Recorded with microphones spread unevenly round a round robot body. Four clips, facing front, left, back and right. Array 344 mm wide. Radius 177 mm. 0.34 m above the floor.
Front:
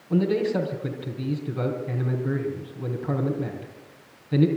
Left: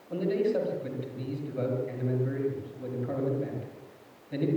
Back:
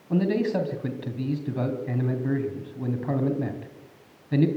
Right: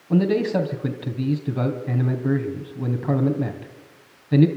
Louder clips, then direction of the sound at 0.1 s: Right 7 dB, front 1 dB; 105° right.